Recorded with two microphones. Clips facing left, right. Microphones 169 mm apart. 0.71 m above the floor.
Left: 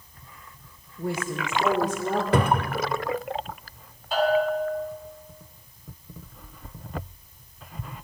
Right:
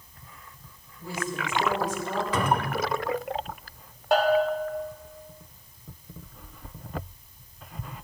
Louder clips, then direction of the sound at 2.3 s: Left 2 dB; 60° left (ahead or behind).